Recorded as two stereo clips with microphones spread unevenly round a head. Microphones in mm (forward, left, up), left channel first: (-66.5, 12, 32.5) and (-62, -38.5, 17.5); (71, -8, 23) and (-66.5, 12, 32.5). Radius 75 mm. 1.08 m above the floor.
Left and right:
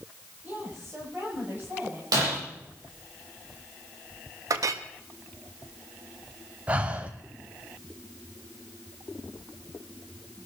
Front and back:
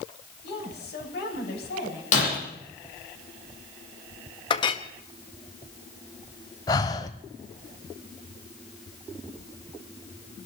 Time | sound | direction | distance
0.4 | a woman speaking | 20° right | 7 m
2.1 | breaking glass | 50° right | 8 m
4.5 | a clink | 65° right | 1.2 m
6.7 | breathing | 5° right | 0.9 m